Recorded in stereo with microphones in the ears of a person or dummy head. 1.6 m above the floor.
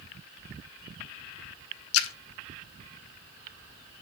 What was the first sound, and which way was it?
A splash, 75° left (ahead or behind).